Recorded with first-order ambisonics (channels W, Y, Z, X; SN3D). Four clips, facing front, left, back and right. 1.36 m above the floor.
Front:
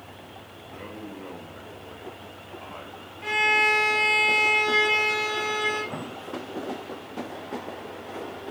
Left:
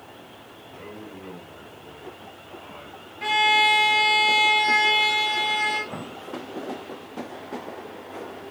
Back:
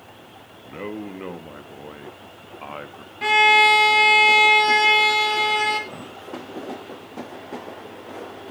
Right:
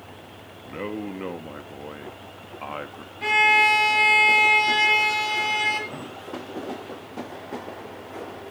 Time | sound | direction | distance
0.7 | a man speaking | 125° right | 1.6 m
3.2 | a violin | 175° left | 2.5 m
5.9 | an explosion | 45° left | 1.2 m